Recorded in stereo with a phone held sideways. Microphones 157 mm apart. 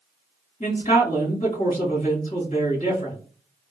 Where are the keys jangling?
I don't hear keys jangling.